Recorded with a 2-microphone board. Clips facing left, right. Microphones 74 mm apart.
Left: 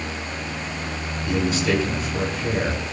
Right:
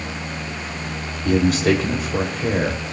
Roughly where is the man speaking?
Right.